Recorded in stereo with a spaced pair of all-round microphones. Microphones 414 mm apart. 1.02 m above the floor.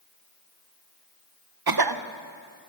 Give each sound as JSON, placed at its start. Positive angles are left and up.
{"t": 1.7, "sound": "a cough", "side_deg": -55, "distance_m": 0.6}